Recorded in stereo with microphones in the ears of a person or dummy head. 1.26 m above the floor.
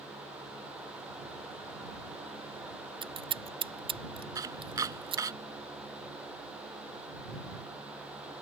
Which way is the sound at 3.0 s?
25° right (ahead or behind).